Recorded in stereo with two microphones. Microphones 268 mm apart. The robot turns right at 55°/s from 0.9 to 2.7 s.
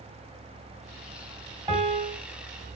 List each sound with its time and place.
1.7 s a piano: 25° right (ahead or behind), 1.8 m; by 2.2 s 10° right (ahead or behind), 1.8 m